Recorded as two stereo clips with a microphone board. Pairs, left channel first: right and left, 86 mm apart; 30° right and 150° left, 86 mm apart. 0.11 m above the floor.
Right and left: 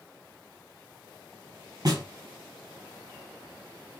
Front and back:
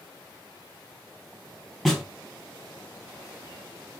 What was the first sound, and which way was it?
A snare drum, 60° left.